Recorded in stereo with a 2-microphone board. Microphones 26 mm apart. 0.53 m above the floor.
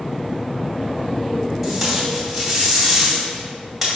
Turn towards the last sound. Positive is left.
turn(degrees=-5)  # may be behind; listen again after turning